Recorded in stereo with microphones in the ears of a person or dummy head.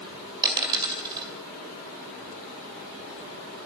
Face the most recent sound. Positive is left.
turn(degrees=-20)  # may be behind; listen again after turning